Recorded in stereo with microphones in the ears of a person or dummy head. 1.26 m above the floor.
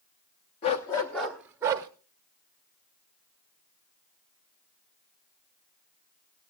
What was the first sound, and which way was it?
A dog barking, 25° left (ahead or behind).